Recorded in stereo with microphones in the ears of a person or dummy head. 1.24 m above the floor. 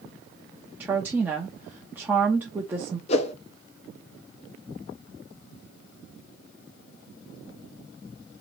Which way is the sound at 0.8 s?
10° right (ahead or behind).